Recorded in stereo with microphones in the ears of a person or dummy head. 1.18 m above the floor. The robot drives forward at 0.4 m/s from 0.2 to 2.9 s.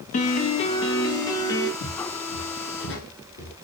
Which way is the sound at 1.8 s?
65° left (ahead or behind).